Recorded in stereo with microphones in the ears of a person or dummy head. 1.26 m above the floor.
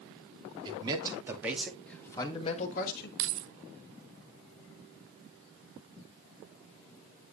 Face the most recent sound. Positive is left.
turn(degrees=-55)  # may be behind; listen again after turning